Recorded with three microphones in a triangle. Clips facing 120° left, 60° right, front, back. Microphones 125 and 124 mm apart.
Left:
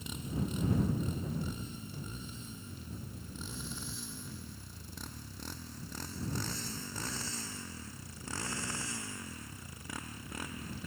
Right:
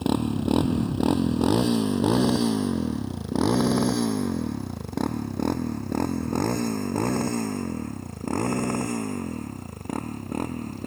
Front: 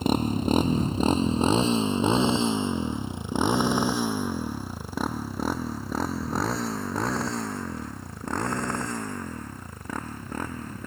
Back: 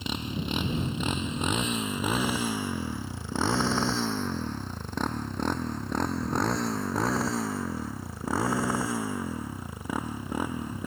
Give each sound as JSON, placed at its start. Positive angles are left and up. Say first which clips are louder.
{"t": 0.0, "sound": "a motorcycle", "louder": "right 15 dB, front 9 dB", "azimuth_deg": -45}